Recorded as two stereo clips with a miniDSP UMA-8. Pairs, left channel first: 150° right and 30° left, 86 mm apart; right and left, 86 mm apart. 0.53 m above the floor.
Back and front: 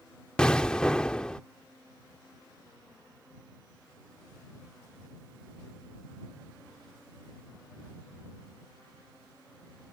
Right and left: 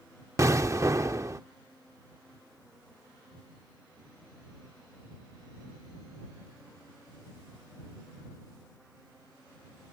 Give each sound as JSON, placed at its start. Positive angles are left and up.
{"t": 0.4, "sound": "an explosion", "azimuth_deg": 130}